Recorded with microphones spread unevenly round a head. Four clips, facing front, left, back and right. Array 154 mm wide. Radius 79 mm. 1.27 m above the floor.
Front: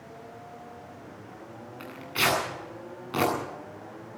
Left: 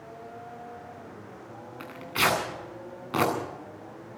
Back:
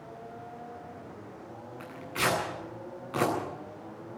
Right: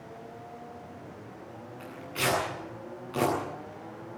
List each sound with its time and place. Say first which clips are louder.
1.8 s tearing paper: left 4 dB, front 2 dB; 65° left, 9.5 m